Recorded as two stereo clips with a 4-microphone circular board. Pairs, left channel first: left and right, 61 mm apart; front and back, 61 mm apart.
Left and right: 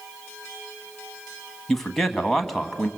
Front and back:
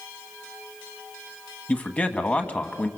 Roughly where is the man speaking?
Ahead.